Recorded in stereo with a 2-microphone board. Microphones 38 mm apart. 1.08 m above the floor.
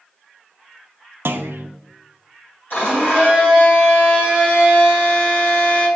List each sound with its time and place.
1.2 s a clunk: 75° right (ahead or behind), 0.5 m
2.7 s a blender: 60° left (ahead or behind), 3 m